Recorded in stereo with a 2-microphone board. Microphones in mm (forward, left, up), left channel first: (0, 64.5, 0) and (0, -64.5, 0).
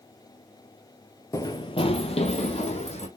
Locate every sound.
1.3 s running footsteps: 25° left (ahead or behind), 0.8 m; by 3.1 s 55° left (ahead or behind), 2.0 m